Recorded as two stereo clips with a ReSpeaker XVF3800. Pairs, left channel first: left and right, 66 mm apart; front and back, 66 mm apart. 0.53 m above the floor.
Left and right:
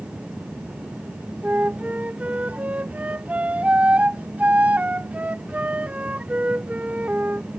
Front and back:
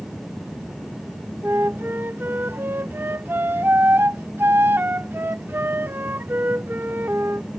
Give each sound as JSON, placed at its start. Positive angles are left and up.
{"t": 1.4, "sound": "a flute", "azimuth_deg": -145}